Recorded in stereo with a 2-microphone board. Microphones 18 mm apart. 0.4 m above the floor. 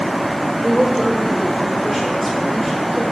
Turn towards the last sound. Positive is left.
turn(degrees=5)  # may be behind; listen again after turning